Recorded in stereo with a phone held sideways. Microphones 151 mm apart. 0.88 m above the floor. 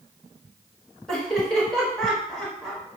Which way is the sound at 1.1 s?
5° left (ahead or behind).